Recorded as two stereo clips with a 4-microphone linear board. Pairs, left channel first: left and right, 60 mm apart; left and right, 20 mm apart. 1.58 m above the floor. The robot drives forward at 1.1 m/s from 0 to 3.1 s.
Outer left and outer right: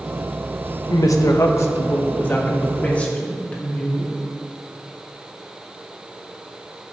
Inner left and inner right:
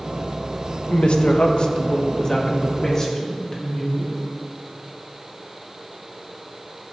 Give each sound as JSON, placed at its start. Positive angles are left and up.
{"t": 0.9, "sound": "a woman speaking", "side_deg": 70, "distance_m": 1.2}